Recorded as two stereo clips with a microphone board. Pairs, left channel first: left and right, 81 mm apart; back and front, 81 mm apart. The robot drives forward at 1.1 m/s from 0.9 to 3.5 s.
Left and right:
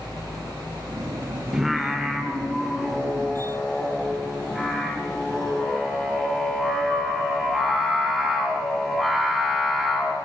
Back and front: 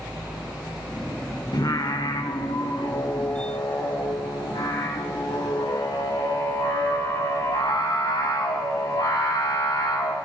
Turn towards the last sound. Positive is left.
turn(degrees=180)